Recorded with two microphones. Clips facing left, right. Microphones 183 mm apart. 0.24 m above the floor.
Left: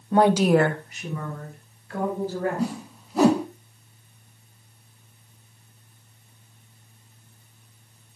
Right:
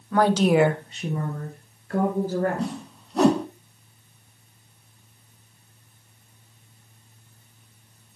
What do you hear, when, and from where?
0.1 s a woman speaking: 30° left (ahead or behind), 1.0 m; by 2.7 s 50° right (ahead or behind), 3.5 m
2.6 s a whoosh: 5° left (ahead or behind), 1.0 m